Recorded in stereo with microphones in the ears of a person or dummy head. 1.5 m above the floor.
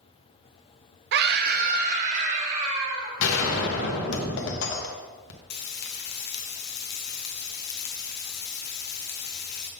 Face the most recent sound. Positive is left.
turn(degrees=55)  # may be behind; listen again after turning